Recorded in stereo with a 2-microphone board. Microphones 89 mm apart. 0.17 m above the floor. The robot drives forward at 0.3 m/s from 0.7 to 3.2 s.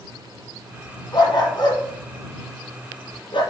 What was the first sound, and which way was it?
A dog barking, 55° left (ahead or behind).